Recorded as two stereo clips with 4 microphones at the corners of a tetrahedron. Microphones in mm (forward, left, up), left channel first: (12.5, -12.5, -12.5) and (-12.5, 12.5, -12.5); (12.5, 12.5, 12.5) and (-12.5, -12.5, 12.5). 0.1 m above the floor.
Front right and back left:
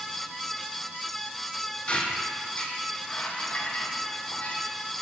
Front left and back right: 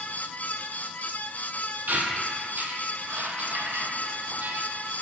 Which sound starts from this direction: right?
A squeak, at 1.9 s.